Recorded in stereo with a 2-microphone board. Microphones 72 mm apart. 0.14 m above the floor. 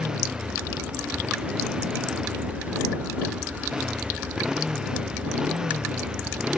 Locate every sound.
0.0 s a motorcycle: 5° right (ahead or behind)